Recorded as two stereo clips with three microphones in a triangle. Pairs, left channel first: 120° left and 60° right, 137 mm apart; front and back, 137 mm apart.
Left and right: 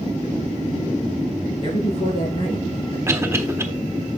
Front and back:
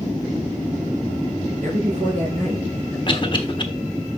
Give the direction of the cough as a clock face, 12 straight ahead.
12 o'clock.